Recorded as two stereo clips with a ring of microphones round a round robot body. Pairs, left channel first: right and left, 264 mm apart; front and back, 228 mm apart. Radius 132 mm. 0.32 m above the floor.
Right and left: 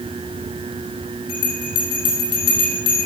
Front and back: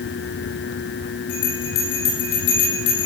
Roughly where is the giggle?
I don't hear a giggle.